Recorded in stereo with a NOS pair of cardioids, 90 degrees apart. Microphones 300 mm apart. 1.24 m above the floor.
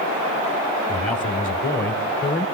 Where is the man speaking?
20° left, 1.4 m; by 2.5 s 40° left, 2.0 m.